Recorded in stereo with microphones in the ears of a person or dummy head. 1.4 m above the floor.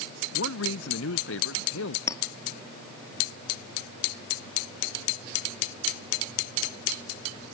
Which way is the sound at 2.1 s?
20° left (ahead or behind).